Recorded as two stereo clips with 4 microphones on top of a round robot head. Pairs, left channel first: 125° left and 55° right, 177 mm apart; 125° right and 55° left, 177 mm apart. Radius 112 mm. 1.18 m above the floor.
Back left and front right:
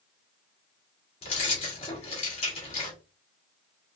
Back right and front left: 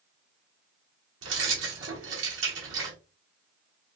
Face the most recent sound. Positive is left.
turn(degrees=65)